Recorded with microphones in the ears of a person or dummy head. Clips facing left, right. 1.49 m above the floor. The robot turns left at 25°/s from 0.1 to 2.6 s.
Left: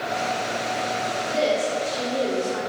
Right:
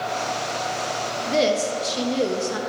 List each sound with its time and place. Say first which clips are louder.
1.3 s a woman speaking: right 2 dB; 70° right, 1.1 m; by 2.6 s 100° right, 1.1 m